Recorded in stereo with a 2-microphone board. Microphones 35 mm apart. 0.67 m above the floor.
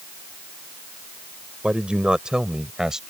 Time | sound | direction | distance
1.6 | a man speaking | 30° right (ahead or behind) | ?